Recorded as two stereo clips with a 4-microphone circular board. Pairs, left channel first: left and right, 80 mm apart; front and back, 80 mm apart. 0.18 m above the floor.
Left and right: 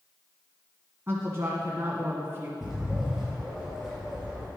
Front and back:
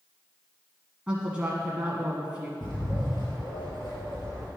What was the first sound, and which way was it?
A woman speaking, 110° right.